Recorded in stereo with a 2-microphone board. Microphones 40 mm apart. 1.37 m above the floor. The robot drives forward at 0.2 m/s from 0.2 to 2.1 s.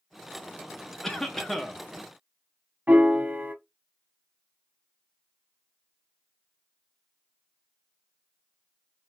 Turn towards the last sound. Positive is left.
turn(degrees=-50)  # may be behind; listen again after turning